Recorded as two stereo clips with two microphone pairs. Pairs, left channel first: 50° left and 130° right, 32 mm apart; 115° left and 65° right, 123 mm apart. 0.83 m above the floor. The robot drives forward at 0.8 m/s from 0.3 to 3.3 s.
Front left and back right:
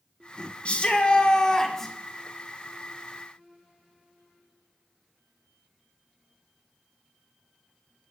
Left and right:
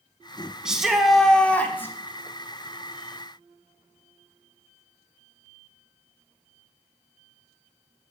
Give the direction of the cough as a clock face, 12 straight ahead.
No cough in this recording.